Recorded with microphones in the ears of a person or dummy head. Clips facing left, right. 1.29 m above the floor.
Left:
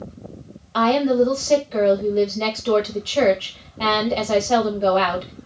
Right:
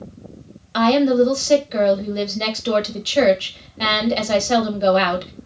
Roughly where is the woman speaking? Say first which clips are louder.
Right 2 dB; centre.